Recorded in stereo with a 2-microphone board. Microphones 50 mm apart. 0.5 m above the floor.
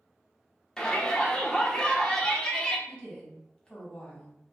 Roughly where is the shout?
Centre.